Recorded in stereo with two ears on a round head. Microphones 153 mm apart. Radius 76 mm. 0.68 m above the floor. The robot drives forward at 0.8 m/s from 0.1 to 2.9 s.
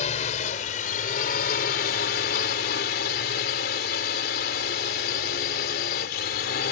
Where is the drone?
45° left (ahead or behind); by 6.7 s 65° left (ahead or behind).